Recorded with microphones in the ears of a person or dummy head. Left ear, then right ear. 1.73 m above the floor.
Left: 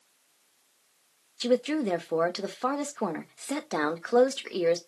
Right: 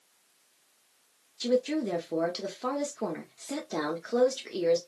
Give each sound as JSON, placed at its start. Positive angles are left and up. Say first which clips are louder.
{"t": 1.4, "sound": "a woman speaking", "louder": "left 2 dB", "side_deg": 40, "distance_m": 0.8}